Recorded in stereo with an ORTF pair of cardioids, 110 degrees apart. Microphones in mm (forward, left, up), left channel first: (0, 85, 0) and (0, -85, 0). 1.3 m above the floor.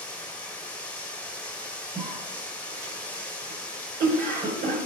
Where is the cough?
65° right, 4.5 m.